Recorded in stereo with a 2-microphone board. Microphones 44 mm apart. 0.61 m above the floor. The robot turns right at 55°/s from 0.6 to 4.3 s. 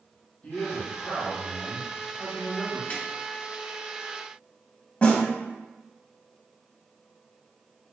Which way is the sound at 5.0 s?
20° left (ahead or behind).